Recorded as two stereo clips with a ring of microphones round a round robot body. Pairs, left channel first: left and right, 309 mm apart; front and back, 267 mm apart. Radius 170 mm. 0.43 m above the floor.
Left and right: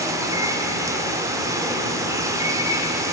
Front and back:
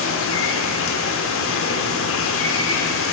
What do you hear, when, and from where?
0.0 s running water: 15° right, 0.9 m